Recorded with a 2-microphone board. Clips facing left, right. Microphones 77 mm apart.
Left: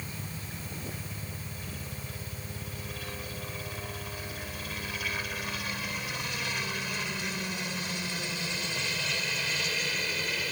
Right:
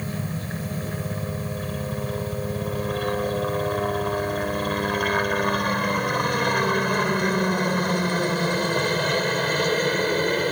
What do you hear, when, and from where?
0.0 s a helicopter: 60° right (ahead or behind); by 10.5 s 50° right (ahead or behind)